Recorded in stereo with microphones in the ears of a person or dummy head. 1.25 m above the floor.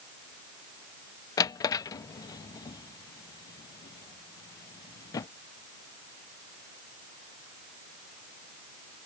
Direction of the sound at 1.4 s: 20° left (ahead or behind).